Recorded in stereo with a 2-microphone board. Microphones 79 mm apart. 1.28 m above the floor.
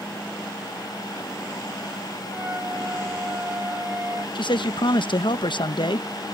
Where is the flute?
30° right (ahead or behind).